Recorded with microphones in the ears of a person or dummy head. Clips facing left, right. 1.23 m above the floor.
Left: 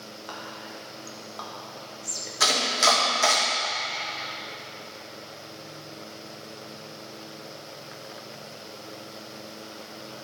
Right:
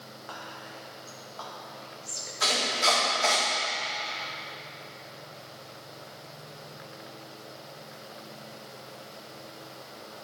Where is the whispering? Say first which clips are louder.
Left 3 dB; 50° left (ahead or behind), 1.2 m.